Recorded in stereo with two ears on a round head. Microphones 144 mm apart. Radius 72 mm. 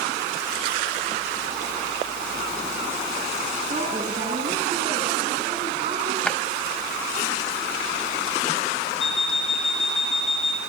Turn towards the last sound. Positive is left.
turn(degrees=40)  # may be behind; listen again after turning